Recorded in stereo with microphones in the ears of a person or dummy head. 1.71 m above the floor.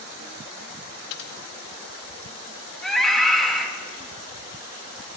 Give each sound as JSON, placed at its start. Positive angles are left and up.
{"t": 1.1, "sound": "typing on a keyboard", "side_deg": 60, "distance_m": 2.0}
{"t": 2.8, "sound": "a scream", "side_deg": 0, "distance_m": 3.5}